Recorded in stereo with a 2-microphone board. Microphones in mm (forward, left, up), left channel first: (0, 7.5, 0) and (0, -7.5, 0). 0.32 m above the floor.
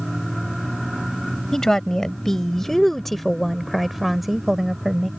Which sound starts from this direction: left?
A woman speaking, at 1.5 s.